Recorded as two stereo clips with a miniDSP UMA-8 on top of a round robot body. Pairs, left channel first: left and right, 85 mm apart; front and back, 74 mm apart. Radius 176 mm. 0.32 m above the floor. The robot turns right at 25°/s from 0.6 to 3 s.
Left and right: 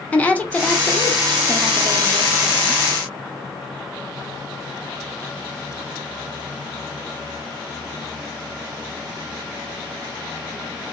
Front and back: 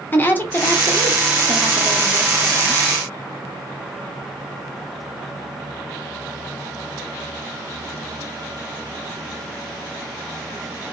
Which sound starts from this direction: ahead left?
A woman speaking, at 0.1 s.